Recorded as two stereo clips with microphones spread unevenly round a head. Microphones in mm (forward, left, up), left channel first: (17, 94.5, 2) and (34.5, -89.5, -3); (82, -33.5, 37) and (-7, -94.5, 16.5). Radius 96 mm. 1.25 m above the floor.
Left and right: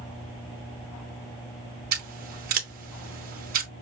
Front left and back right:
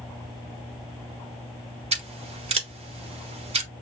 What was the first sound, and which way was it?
Scissors, 125° right.